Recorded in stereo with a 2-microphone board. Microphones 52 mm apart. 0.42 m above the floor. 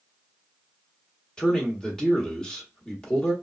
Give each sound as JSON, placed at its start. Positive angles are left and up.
{"t": 1.4, "sound": "a man speaking", "side_deg": 15, "distance_m": 1.0}